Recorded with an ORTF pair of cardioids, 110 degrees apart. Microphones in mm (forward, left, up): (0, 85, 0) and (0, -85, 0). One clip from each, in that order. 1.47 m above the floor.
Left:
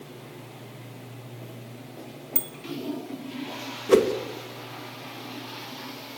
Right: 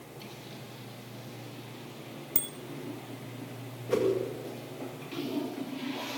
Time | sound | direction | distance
2.4 | a bicycle bell | 15° right | 2 m
3.9 | a whoosh | 60° left | 1.9 m